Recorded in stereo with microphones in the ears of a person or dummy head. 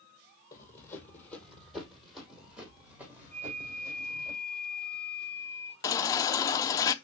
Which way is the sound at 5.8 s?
25° left (ahead or behind).